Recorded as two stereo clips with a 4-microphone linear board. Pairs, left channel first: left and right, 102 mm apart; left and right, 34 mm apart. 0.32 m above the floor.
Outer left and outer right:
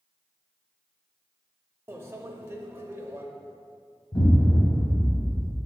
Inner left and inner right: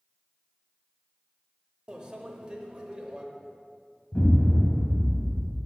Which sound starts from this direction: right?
A microwave, at 1.9 s.